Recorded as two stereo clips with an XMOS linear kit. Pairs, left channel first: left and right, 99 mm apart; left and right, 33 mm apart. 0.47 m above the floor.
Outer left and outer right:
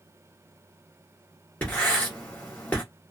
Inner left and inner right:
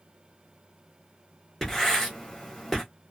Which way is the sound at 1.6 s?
15° left (ahead or behind).